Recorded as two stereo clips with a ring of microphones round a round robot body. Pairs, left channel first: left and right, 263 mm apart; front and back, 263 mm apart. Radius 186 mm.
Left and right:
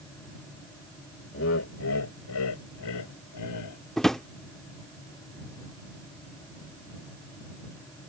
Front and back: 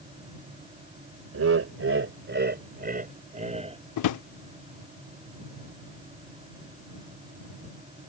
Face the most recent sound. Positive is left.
turn(degrees=0)